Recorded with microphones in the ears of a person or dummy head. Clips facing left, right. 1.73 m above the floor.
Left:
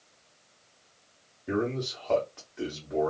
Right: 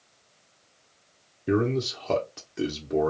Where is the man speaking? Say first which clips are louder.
Right 5 dB; 35° right (ahead or behind), 0.8 m.